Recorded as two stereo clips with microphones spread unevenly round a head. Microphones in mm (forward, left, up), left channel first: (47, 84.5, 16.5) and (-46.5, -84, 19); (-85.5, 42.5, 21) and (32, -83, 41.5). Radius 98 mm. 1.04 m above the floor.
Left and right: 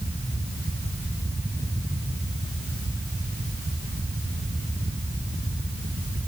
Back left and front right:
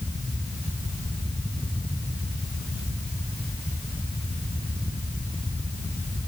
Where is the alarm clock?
I don't hear an alarm clock.